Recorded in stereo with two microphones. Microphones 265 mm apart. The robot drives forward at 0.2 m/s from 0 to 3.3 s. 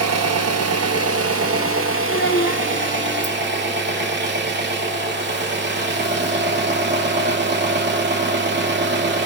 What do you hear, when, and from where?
0.0 s an engine running: 70° right (ahead or behind), 0.7 m; by 9.3 s 40° right (ahead or behind), 1.0 m
2.1 s a child speaking: 45° left (ahead or behind), 0.8 m